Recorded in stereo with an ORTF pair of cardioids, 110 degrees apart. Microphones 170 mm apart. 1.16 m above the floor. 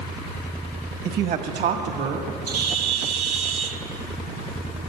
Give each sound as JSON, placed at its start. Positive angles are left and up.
{"t": 1.1, "sound": "a man speaking", "azimuth_deg": -65, "distance_m": 1.2}
{"t": 2.5, "sound": "a bird", "azimuth_deg": -60, "distance_m": 1.2}